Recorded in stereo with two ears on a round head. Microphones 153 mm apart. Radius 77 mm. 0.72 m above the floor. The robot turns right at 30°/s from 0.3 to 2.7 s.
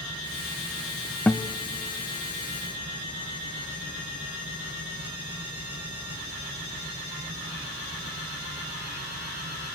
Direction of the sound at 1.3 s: 10° left (ahead or behind).